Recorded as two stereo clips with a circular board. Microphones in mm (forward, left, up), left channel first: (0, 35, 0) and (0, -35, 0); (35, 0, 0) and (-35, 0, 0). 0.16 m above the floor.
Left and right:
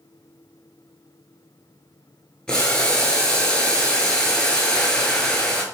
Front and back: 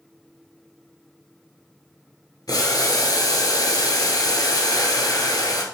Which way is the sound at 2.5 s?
10° left.